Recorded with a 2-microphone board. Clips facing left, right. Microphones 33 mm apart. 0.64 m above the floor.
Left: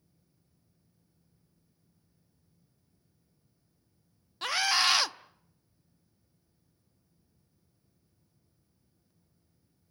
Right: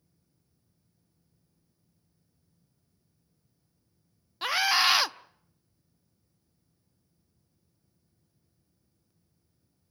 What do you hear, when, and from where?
4.4 s a scream: 15° right (ahead or behind), 0.7 m